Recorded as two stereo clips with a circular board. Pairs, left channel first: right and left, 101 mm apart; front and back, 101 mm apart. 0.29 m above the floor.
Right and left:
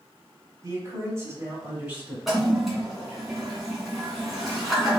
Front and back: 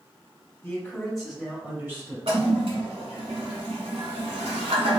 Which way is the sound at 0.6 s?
65° left.